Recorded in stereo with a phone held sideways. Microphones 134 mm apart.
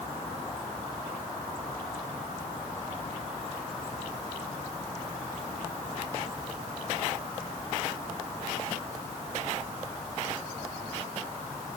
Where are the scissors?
I don't hear scissors.